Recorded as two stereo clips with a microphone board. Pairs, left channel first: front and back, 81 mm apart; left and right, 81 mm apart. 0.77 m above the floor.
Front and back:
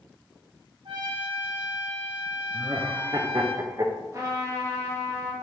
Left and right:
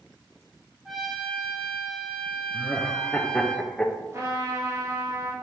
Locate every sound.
0.8 s a trumpet: straight behind, 0.9 m
2.5 s laughter: 170° left, 0.6 m
4.1 s a trumpet: 135° right, 1.1 m